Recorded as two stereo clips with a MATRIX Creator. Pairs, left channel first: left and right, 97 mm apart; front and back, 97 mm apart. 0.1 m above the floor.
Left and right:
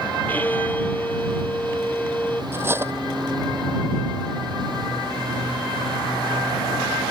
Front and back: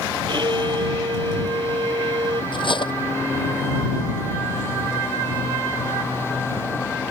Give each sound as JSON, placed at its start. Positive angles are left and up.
{"t": 0.3, "sound": "a violin", "azimuth_deg": 160}
{"t": 2.5, "sound": "cutlery clinking", "azimuth_deg": -25}